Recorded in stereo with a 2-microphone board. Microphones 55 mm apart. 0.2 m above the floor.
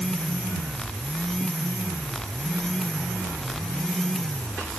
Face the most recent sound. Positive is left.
No sound to turn to.